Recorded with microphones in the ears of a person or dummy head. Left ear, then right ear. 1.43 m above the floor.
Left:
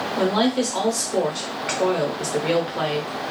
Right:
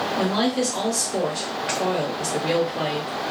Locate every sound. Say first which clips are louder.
0.2 s a woman speaking: left 4 dB; 20° left (ahead or behind), 0.7 m